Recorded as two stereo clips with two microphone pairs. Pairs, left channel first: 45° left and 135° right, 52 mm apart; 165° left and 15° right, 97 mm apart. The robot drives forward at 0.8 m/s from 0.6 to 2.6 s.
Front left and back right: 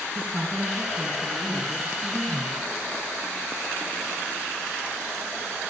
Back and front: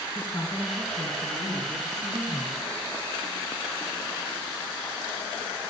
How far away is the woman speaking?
About 2 m.